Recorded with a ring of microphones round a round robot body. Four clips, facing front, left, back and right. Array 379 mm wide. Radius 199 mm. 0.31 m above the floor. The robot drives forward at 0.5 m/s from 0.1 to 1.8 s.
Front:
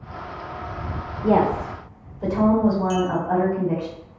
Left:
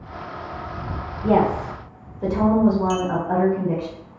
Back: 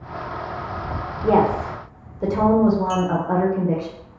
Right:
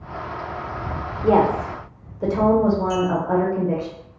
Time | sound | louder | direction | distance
1.2 | a woman speaking | right 2 dB, back 1 dB | 120° right | 0.9 m
2.9 | a clink | right 1 dB, even | 90° left | 0.7 m